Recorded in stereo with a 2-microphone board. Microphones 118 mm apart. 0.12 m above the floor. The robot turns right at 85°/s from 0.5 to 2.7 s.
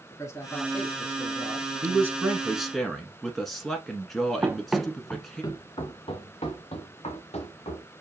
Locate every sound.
0.1 s a man speaking: 25° left (ahead or behind), 1.1 m; by 1.7 s 5° right (ahead or behind), 1.1 m
1.8 s a man speaking: 20° right (ahead or behind), 1.1 m; by 5.4 s centre (ahead or behind), 1.1 m
4.4 s running footsteps: 20° right (ahead or behind), 0.7 m; by 7.9 s 75° left (ahead or behind), 2 m